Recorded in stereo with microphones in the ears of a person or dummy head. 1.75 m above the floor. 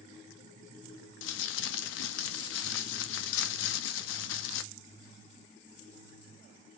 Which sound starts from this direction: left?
Crumpling, at 1.2 s.